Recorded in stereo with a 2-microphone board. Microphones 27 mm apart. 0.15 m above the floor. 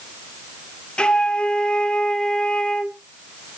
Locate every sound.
1.0 s a flute: 35° left (ahead or behind), 0.9 m